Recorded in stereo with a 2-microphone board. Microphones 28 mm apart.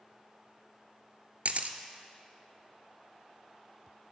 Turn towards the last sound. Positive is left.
turn(degrees=-60)  # may be behind; listen again after turning